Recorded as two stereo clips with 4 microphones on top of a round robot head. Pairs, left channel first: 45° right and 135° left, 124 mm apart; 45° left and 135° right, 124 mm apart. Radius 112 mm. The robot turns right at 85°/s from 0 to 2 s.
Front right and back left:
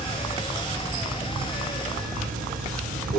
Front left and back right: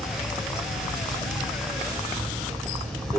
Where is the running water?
35° right, 1.1 m; by 3.2 s 135° left, 1.1 m.